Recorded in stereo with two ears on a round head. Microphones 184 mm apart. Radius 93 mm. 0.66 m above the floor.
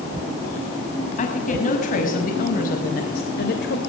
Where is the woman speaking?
40° left (ahead or behind), 5.5 m; by 3.8 s 55° left (ahead or behind), 3 m.